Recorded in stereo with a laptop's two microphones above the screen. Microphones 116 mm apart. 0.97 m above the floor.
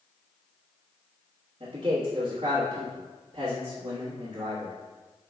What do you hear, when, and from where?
1.6 s a man speaking: 65° right (ahead or behind), 1.3 m